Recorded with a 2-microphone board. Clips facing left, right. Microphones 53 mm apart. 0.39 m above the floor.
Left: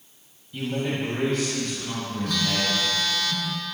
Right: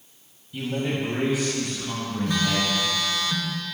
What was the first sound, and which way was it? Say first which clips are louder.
A man speaking: even; centre (ahead or behind).